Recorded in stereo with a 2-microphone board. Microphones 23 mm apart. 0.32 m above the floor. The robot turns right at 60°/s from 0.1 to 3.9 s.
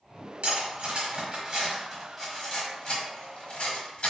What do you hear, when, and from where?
0.4 s cutlery clinking: 60° right (ahead or behind), 1.1 m; by 4.1 s 50° left (ahead or behind), 1.1 m